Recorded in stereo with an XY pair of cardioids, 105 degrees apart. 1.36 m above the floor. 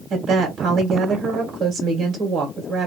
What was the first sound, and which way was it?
A woman speaking, 65° right.